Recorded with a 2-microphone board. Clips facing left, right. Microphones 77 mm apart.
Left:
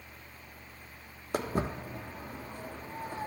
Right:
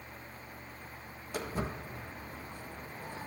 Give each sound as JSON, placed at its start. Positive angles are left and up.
{"t": 1.3, "sound": "footsteps", "side_deg": 55, "distance_m": 1.8}